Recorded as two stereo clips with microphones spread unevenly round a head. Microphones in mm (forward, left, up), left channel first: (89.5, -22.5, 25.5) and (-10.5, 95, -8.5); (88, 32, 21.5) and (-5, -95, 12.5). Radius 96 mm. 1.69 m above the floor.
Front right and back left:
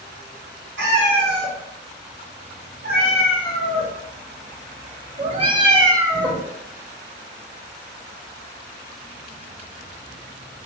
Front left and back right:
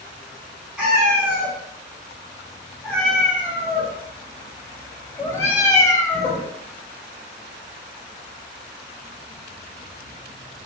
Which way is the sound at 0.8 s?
140° left.